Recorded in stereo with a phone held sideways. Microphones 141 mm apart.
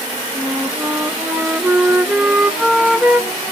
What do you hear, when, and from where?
0.3 s a flute: 5° right (ahead or behind), 0.9 m